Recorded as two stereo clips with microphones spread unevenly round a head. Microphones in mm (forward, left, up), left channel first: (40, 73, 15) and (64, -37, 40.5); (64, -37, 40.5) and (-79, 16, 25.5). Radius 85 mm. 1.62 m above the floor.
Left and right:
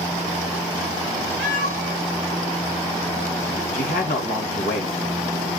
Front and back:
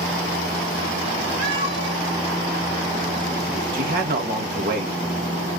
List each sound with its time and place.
1.4 s a cat meowing: 140° left, 3.5 m
3.7 s a man speaking: 125° left, 1.9 m